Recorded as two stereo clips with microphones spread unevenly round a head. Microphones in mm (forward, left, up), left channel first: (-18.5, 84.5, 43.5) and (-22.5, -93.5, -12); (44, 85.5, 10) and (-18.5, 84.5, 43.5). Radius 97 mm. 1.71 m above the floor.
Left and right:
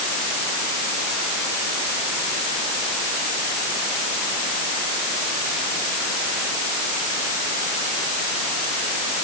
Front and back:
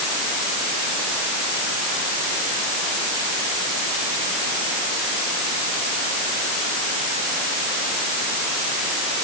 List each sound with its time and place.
Only background noise.